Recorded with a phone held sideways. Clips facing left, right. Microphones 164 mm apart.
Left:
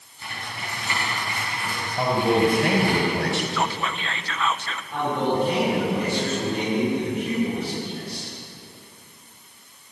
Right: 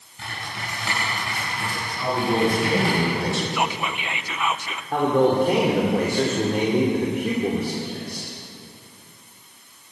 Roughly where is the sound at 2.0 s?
Left.